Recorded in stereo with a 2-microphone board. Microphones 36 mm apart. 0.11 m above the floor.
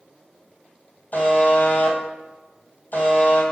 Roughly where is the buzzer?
Left.